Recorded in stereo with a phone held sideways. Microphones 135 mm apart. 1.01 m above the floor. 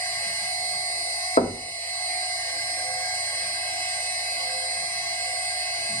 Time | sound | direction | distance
0.0 | a machine running | 15° left (ahead or behind) | 4.5 m
1.4 | knocking | 55° left (ahead or behind) | 0.8 m